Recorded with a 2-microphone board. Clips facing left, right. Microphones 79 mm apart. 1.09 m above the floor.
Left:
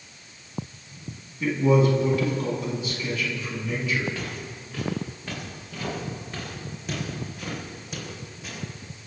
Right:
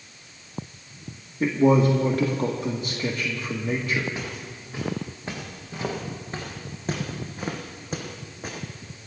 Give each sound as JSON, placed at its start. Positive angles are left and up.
{"t": 1.4, "sound": "a man speaking", "side_deg": -50, "distance_m": 1.7}
{"t": 4.2, "sound": "footsteps", "side_deg": -25, "distance_m": 4.0}